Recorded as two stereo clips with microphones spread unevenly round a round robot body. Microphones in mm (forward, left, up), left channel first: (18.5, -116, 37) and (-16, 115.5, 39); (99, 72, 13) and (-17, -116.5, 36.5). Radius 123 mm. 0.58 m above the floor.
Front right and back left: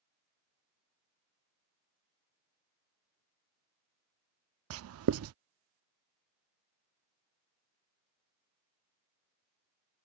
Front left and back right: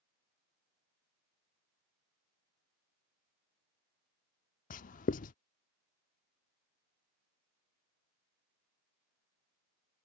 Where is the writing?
105° left.